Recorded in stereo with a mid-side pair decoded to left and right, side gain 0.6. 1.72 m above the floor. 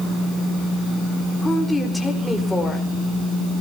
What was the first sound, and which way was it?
A woman speaking, 10° left.